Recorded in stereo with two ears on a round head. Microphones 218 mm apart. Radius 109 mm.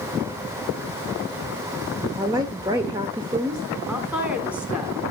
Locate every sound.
2.2 s a woman speaking: 20° right (ahead or behind), 1.4 m
3.9 s a woman speaking: 5° right (ahead or behind), 3.5 m